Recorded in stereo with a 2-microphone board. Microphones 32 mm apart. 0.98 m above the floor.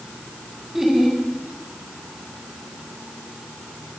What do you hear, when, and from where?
0.7 s laughter: 10° right (ahead or behind), 8 m